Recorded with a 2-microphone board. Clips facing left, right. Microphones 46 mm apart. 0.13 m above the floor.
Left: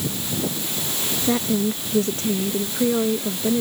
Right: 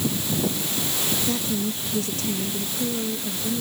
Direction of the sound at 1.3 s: 35° left (ahead or behind).